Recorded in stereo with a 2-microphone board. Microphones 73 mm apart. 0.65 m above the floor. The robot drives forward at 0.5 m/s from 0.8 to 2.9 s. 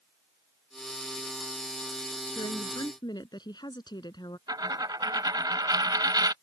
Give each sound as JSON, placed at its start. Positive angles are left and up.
{"t": 2.4, "sound": "a woman speaking", "side_deg": 75}
{"t": 4.5, "sound": "a dropped coin", "side_deg": -70}